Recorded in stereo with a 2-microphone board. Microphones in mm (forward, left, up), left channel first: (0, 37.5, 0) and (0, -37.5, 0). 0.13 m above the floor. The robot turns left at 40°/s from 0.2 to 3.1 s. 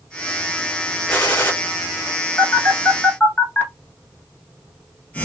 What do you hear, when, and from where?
1.1 s a gunshot: 20° left (ahead or behind), 2 m; by 1.5 s 30° left (ahead or behind), 2 m
2.4 s a phone buzzing: 40° left (ahead or behind), 1.0 m; by 5.2 s 20° left (ahead or behind), 1.0 m